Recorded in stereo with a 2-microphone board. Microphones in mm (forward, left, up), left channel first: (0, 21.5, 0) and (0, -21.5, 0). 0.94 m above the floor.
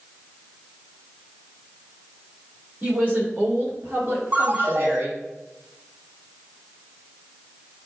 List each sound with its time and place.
2.8 s a woman speaking: 35° right (ahead or behind), 3.5 m; by 5.2 s 65° right (ahead or behind), 2 m
4.3 s a ringtone: 55° right (ahead or behind), 3.5 m